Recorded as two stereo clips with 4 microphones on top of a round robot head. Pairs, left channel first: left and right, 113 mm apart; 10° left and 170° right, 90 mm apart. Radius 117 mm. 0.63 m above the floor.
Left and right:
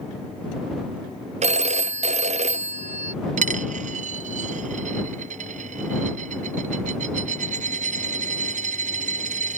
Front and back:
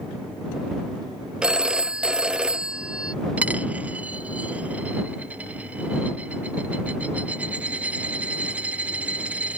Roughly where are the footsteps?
No footsteps in this recording.